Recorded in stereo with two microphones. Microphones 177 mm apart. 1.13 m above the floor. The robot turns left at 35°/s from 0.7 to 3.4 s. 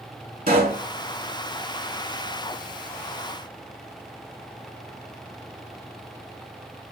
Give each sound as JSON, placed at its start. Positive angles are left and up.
{"t": 0.5, "sound": "a pop", "side_deg": -55, "distance_m": 1.9}